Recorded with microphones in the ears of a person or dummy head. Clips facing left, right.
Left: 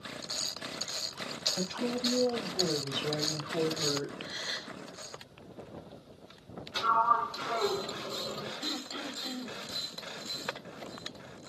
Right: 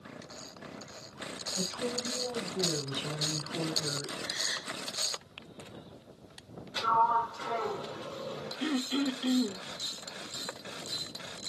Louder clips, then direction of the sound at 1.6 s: Left 2 dB; 80° left.